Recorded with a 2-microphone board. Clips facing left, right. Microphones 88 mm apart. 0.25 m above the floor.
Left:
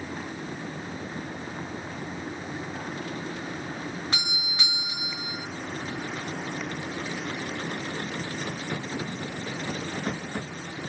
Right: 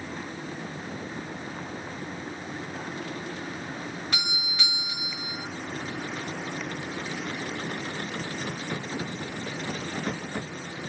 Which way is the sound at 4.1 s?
25° left (ahead or behind).